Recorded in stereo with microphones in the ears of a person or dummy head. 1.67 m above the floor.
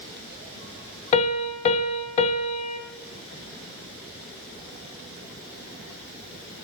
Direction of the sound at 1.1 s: 35° left (ahead or behind).